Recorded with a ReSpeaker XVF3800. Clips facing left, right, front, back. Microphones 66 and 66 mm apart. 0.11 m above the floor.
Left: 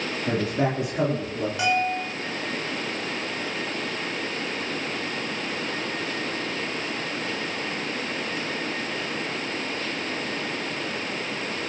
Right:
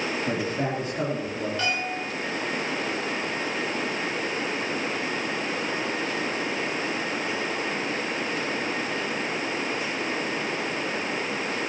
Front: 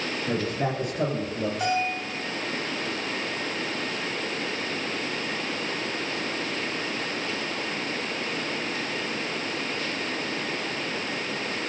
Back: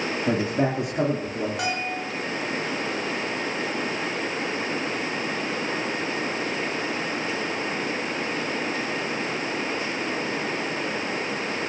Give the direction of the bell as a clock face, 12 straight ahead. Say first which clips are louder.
Left 4 dB, front 2 dB; 6 o'clock.